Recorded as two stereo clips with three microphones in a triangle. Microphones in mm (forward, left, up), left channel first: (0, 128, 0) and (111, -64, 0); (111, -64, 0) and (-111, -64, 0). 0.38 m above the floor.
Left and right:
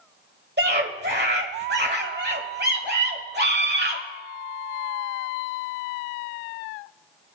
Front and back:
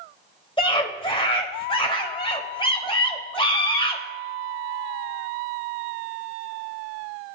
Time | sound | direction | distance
0.6 | a scream | 60° right | 1.3 m